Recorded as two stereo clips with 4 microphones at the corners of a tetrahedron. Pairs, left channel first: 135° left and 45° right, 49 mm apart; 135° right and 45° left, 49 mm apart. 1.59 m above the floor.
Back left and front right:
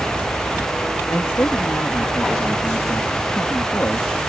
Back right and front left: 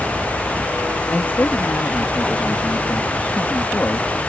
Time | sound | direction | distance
1.1 | a man speaking | 175° left | ?